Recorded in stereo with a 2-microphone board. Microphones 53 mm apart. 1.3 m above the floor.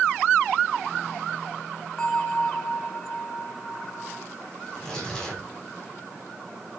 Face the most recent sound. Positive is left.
turn(degrees=15)  # may be behind; listen again after turning